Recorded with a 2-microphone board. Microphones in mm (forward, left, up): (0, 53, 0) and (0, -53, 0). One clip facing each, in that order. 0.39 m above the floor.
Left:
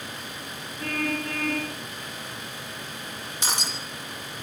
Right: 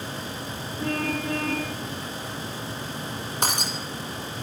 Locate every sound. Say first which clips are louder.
0.8 s a car horn: right 2 dB; 15° right (ahead or behind), 10 m
3.4 s breaking glass: right 3 dB; 50° right (ahead or behind), 7.5 m